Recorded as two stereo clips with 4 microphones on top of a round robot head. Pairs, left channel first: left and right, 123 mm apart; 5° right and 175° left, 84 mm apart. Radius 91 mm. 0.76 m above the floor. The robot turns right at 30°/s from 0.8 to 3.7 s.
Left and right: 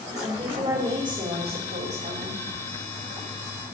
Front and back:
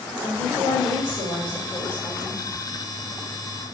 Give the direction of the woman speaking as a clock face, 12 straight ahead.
5 o'clock.